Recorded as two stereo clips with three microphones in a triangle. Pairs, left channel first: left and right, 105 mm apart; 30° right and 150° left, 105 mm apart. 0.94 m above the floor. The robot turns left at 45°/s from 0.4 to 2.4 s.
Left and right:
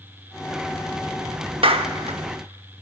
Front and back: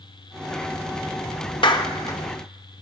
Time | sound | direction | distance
1.6 | a clap | 65° right | 1.0 m